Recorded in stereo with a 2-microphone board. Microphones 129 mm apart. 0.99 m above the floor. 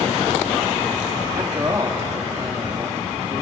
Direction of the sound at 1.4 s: 30° right (ahead or behind).